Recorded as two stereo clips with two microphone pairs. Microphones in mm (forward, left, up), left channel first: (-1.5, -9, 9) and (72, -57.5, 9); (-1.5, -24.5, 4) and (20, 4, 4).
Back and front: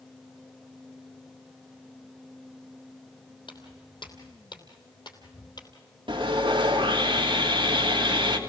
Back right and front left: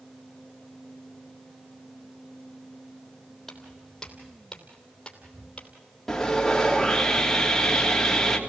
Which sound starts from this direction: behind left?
Footsteps, at 3.5 s.